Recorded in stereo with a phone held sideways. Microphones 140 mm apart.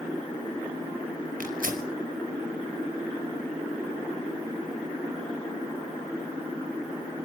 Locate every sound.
1.4 s tearing paper: 75° right (ahead or behind), 5 m